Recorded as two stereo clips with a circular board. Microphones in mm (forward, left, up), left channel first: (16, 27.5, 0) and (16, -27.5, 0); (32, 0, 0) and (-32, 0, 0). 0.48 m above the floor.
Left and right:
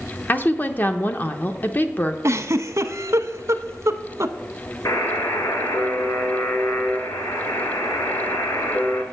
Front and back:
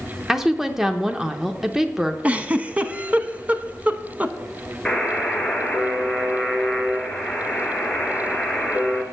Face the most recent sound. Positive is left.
turn(degrees=80)